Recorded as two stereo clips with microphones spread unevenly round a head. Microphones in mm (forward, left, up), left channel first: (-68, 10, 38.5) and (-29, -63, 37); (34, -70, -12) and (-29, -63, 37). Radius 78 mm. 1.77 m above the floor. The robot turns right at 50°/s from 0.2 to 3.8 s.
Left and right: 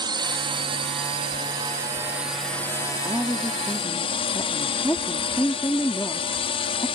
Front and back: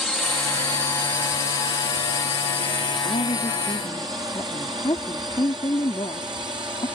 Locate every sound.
0.0 s a drone: 90° right; by 7.0 s 110° left
3.0 s a woman speaking: 15° left; by 6.9 s 50° left